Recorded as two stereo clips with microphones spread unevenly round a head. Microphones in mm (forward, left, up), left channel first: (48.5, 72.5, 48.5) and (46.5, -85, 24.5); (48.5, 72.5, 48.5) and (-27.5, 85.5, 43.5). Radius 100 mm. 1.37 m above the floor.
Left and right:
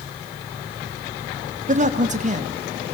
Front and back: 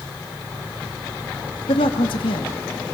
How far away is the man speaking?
About 2.5 m.